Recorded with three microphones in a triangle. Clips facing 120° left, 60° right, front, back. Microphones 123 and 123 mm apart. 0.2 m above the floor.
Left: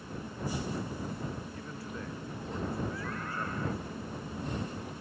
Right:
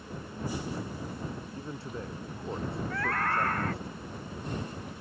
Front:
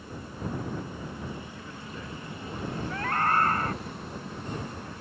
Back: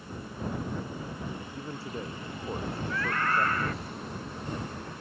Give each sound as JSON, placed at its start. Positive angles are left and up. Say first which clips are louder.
{"t": 1.5, "sound": "a man speaking", "louder": "right 3 dB, back 4 dB", "azimuth_deg": -120}
{"t": 2.9, "sound": "a scream", "louder": "right 7 dB, front 3 dB", "azimuth_deg": -50}